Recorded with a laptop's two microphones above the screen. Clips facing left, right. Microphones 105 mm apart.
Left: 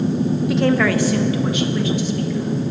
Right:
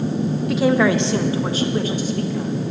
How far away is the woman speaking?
About 0.6 m.